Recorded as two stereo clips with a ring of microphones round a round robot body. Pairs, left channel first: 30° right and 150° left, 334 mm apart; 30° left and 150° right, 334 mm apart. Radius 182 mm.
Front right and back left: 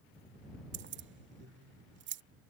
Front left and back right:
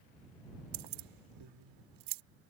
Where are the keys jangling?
150° right.